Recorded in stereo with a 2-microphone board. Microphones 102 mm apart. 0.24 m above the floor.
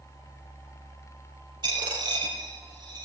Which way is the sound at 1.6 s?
45° right (ahead or behind).